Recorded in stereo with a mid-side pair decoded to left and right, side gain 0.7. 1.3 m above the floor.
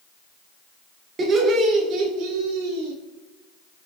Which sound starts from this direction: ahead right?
Laughter, at 1.2 s.